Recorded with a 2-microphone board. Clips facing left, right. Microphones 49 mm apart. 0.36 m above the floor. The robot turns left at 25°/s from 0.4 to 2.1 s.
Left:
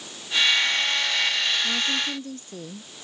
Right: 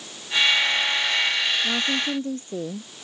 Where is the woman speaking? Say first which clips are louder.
Right 2 dB; 25° right (ahead or behind); by 2.9 s 35° right (ahead or behind).